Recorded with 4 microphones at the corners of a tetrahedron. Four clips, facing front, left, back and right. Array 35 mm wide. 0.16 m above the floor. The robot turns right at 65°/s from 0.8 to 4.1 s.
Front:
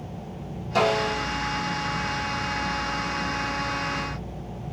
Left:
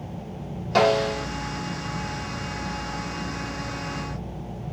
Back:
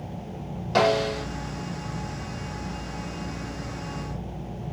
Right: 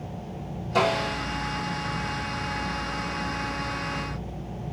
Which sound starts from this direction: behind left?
A snare drum, at 0.8 s.